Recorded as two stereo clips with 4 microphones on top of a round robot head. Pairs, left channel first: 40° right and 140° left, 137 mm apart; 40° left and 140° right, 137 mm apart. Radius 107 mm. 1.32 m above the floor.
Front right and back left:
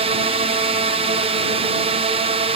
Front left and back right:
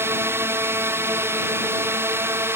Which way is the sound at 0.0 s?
155° left.